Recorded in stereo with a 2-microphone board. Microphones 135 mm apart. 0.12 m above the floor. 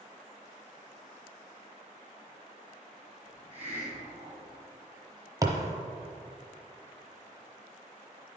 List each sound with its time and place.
3.2 s a hiss: 15° right (ahead or behind), 2.5 m
5.4 s a thud: 25° right (ahead or behind), 1.0 m